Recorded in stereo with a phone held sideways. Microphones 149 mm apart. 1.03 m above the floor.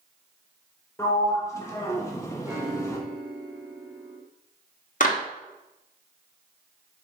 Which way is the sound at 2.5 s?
20° right (ahead or behind).